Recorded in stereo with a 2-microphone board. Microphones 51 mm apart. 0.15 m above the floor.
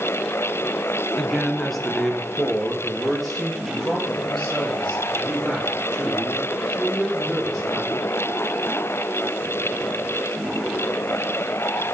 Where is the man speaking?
5° left (ahead or behind), 1.4 m; by 7.9 s centre (ahead or behind), 9 m.